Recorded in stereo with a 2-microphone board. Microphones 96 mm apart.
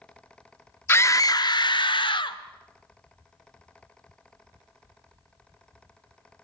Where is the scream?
25° left (ahead or behind), 0.8 m; by 2.4 s 60° left (ahead or behind), 1.4 m.